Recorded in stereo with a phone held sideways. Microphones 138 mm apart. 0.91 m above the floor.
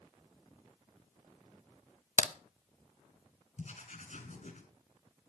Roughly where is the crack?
Left.